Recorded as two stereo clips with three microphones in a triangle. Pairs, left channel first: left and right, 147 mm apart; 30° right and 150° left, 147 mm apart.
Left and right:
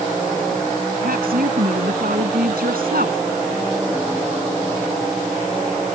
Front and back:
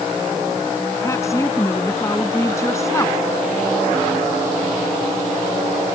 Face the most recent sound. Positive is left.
turn(degrees=-100)